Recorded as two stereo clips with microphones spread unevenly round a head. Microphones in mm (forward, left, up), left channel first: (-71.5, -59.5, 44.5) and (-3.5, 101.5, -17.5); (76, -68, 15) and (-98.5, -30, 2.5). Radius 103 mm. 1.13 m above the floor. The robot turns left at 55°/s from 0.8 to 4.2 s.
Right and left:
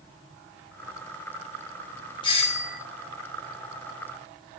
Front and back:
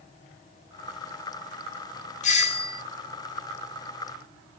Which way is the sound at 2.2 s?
35° right.